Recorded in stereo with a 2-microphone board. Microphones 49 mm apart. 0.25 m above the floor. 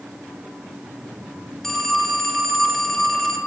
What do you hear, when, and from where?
1.6 s a phone ringing: 10° left (ahead or behind), 1.2 m